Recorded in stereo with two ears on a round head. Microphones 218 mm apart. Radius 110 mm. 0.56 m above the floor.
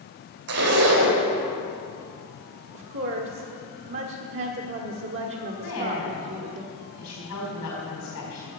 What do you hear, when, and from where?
0.5 s a zipper: 70° right (ahead or behind), 2.5 m
2.7 s a woman speaking: 55° right (ahead or behind), 1.2 m
5.6 s a woman speaking: 75° left (ahead or behind), 4 m